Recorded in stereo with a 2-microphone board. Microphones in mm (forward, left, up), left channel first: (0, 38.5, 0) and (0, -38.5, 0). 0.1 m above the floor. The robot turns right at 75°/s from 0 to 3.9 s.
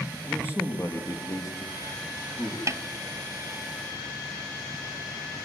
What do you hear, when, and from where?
0.2 s a man speaking: 20° left, 2.5 m; by 2.6 s 165° right, 2.5 m
2.7 s a snare drum: 45° right (ahead or behind), 0.7 m; by 2.8 s 50° right (ahead or behind), 0.7 m